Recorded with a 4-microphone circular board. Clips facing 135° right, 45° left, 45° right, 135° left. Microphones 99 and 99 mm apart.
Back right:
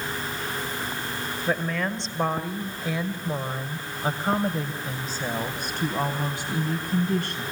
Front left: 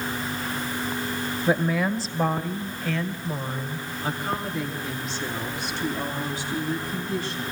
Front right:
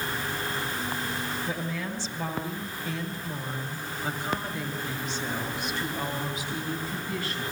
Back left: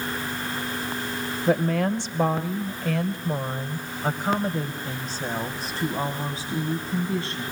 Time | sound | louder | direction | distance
1.5 | a woman speaking | front left 4 dB, back left 10 dB | 120° left | 1.8 m